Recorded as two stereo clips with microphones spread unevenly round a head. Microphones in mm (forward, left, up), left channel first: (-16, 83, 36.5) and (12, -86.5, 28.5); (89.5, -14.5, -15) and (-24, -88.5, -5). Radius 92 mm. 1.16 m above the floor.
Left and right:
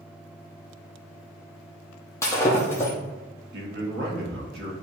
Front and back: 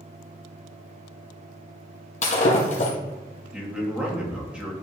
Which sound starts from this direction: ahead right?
A man speaking, at 3.5 s.